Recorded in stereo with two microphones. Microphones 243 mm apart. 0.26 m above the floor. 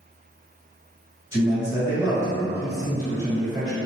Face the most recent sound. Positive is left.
turn(degrees=-10)  # may be behind; listen again after turning